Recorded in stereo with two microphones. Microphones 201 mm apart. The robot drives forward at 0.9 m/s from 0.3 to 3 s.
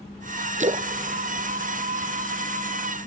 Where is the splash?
40° right (ahead or behind), 0.5 m; by 2.8 s 10° right (ahead or behind), 2.5 m.